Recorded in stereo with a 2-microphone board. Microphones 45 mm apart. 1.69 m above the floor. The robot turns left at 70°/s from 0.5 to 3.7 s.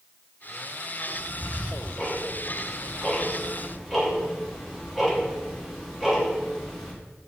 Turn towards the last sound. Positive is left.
turn(degrees=-5)  # may be behind; listen again after turning